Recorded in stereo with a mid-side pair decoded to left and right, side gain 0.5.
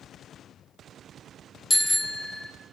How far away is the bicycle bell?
About 2.5 m.